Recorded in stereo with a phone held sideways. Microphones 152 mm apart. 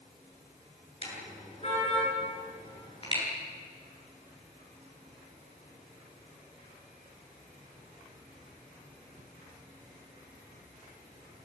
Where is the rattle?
I don't hear a rattle.